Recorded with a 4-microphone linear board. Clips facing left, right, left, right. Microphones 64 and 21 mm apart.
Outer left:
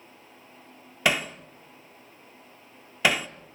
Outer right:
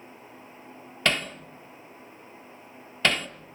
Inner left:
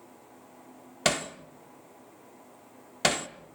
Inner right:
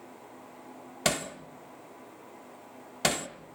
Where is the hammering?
10° left (ahead or behind), 1.0 m.